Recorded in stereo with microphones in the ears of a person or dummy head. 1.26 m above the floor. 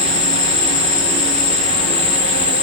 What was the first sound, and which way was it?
An insect, 10° left (ahead or behind).